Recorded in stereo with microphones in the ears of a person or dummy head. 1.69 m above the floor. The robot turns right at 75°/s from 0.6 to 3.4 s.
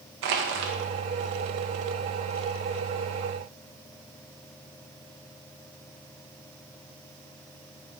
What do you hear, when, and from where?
0.2 s crushing: 50° right (ahead or behind), 0.9 m